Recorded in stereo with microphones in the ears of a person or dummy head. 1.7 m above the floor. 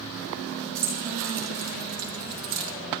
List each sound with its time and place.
0.8 s keys jangling: 60° right (ahead or behind), 4 m; by 2.7 s 70° right (ahead or behind), 3 m